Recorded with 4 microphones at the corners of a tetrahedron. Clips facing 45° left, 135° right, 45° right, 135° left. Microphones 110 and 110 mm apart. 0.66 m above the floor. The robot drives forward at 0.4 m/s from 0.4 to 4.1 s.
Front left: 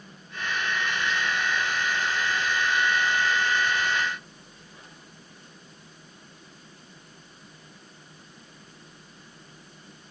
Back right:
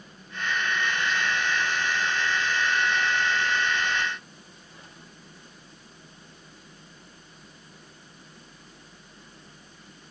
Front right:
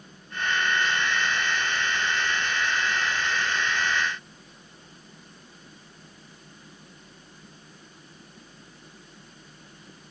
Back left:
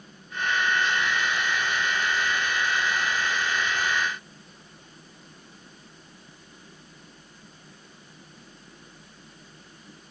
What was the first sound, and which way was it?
Only background noise.